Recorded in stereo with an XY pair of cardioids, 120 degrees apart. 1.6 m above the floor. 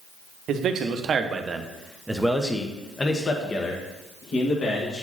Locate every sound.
0.5 s a man speaking: 60° right, 1.2 m; by 5.0 s 50° left, 2 m